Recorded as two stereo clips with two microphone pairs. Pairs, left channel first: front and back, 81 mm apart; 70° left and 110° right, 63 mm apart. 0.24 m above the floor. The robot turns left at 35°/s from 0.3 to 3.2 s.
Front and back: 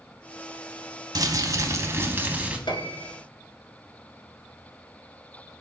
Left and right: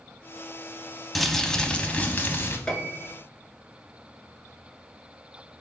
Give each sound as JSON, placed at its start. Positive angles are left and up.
{"t": 1.1, "sound": "crumpling", "azimuth_deg": 160, "distance_m": 0.6}
{"t": 2.7, "sound": "a piano", "azimuth_deg": -5, "distance_m": 0.7}